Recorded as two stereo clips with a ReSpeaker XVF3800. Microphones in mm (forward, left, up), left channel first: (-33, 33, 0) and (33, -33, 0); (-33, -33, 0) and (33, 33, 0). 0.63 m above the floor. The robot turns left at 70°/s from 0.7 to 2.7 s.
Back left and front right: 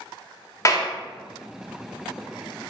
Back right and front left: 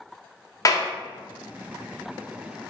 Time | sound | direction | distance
0.7 | a clap | straight behind | 0.5 m